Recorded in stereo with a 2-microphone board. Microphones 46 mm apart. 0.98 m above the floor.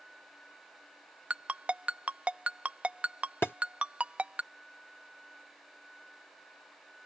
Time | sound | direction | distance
1.3 | a ringtone | 30° right (ahead or behind) | ?
3.4 | a thud | 60° left (ahead or behind) | ?